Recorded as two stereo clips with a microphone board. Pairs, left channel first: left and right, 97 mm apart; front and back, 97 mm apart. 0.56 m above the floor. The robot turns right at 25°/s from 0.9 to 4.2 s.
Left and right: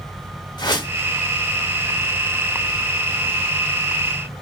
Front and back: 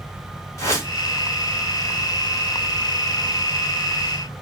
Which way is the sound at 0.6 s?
55° left.